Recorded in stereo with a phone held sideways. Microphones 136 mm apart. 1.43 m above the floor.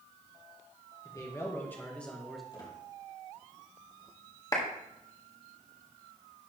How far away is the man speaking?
About 1.7 m.